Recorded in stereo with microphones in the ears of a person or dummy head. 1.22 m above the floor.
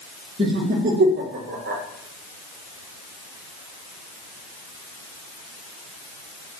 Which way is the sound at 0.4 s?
35° right (ahead or behind).